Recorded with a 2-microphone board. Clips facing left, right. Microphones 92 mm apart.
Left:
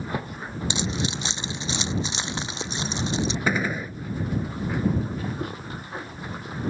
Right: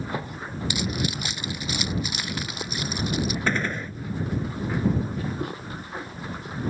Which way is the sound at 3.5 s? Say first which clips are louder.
Left 1 dB; 10° left (ahead or behind).